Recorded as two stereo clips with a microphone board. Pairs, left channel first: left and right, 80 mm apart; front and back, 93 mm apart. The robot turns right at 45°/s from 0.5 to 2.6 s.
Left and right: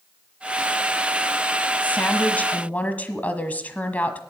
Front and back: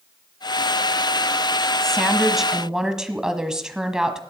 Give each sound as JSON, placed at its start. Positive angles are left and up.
{"t": 1.8, "sound": "a woman speaking", "azimuth_deg": 75, "distance_m": 1.3}